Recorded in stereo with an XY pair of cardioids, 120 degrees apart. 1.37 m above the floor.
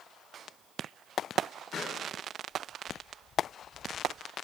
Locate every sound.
1.7 s a pop: 45° left, 8.5 m